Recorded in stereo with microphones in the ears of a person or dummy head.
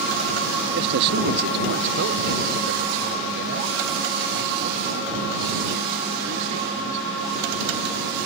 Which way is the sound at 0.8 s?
55° right (ahead or behind).